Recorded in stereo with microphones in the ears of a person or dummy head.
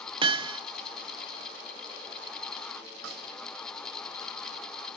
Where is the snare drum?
75° right (ahead or behind), 7 m.